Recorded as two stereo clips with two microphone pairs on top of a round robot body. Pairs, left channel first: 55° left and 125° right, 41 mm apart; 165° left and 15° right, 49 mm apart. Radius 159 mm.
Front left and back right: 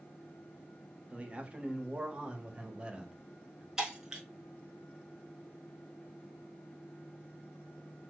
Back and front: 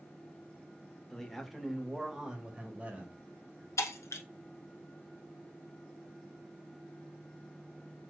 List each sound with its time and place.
1.1 s a man speaking: 150° right, 1.5 m; by 3.7 s 70° right, 2 m
3.8 s breaking glass: 150° left, 0.8 m